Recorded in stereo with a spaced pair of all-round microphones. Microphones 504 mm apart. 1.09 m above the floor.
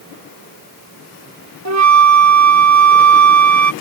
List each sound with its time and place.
1.6 s a flute: 35° right (ahead or behind)